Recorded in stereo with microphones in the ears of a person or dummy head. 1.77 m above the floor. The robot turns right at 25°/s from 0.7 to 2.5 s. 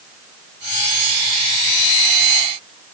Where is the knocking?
No knocking in this recording.